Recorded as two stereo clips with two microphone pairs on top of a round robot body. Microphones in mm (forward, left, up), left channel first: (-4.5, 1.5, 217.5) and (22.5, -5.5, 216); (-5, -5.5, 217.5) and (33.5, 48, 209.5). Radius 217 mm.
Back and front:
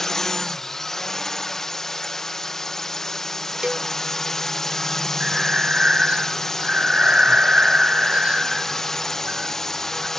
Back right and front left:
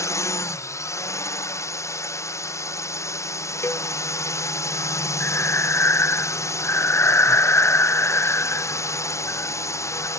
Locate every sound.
0.0 s a drone: 125° right
3.6 s a cowbell: 70° right
5.2 s breathing: 70° right